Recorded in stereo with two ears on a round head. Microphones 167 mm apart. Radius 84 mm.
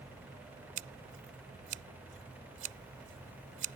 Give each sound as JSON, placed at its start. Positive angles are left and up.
{"t": 0.8, "sound": "scissors", "side_deg": -70}